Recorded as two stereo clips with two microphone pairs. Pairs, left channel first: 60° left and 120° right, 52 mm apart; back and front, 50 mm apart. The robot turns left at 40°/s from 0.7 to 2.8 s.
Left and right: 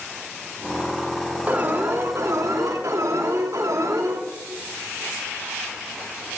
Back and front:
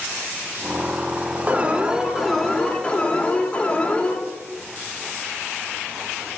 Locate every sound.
1.5 s an alarm: 65° right, 1.7 m; by 4.2 s 115° right, 1.7 m